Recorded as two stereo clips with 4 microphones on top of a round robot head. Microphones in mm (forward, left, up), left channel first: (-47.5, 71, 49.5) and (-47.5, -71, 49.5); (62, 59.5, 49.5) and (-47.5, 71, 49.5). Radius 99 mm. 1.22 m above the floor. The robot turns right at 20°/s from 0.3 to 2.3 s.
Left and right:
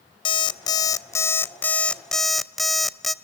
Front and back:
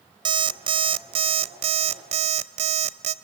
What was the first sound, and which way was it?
An alarm clock, 140° left.